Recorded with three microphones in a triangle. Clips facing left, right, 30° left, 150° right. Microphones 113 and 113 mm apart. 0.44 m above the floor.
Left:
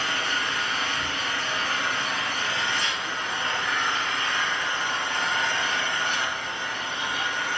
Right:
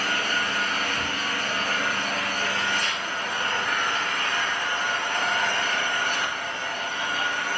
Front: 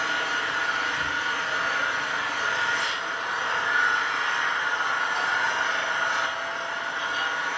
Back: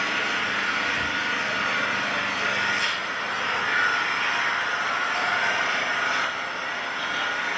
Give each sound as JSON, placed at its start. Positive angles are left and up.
{"t": 0.0, "sound": "an engine running", "azimuth_deg": -135, "distance_m": 2.0}